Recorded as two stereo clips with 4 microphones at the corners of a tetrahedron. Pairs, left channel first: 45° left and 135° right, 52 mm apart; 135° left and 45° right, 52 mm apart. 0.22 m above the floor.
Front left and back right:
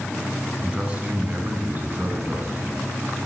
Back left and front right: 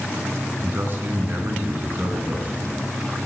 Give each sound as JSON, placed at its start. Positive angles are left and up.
{"t": 0.6, "sound": "a man speaking", "azimuth_deg": -70, "distance_m": 1.5}